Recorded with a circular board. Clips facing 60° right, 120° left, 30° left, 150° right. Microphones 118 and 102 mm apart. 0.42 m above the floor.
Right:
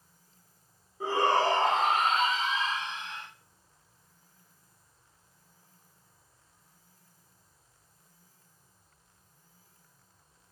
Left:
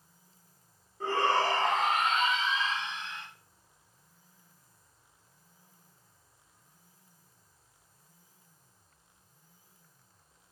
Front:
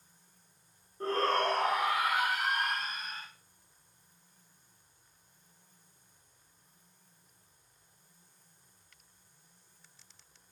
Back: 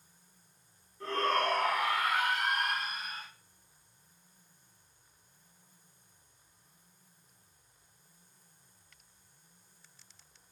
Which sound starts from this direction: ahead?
A shout, at 1.0 s.